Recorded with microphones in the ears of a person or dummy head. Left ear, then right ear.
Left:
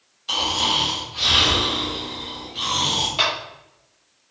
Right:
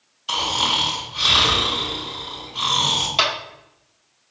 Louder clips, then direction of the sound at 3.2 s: Right 1 dB; 25° right (ahead or behind).